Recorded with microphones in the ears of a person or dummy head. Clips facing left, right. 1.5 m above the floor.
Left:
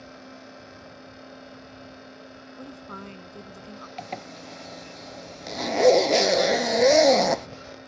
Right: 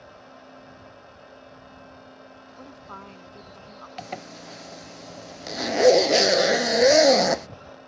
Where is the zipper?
5° right (ahead or behind).